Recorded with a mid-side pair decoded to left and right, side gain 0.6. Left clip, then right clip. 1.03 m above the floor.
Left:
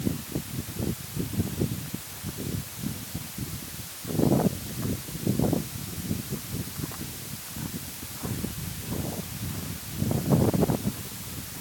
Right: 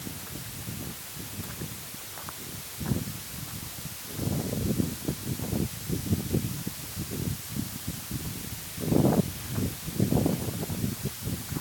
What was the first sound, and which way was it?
Only background noise.